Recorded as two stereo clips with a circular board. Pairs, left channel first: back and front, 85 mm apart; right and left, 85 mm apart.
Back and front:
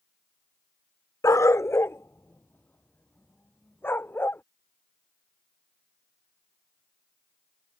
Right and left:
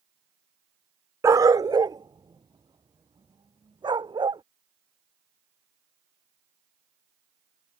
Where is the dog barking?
135° left; by 4.4 s 115° left.